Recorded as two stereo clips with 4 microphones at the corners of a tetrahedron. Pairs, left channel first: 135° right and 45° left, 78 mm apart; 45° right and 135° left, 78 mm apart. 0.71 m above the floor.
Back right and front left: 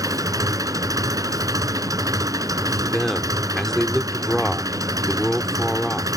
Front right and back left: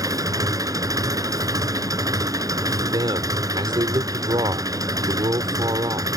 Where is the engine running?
90° left.